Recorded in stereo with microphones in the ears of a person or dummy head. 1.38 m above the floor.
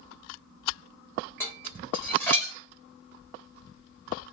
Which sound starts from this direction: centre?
Dishes clattering, at 1.4 s.